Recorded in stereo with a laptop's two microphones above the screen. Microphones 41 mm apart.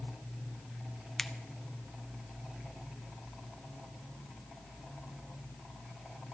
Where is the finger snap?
10° left (ahead or behind), 0.9 m.